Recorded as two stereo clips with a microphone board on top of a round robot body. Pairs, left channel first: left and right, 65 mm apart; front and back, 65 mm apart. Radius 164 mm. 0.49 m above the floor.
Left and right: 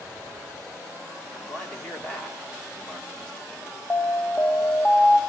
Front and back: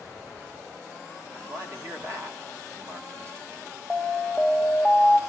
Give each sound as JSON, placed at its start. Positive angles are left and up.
{"t": 1.3, "sound": "a man speaking", "azimuth_deg": 160, "distance_m": 1.8}
{"t": 3.9, "sound": "an alarm", "azimuth_deg": 120, "distance_m": 1.8}